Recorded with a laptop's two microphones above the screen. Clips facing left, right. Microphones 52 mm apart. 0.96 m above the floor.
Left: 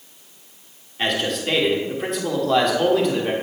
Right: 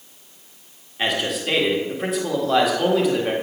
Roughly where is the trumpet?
No trumpet in this recording.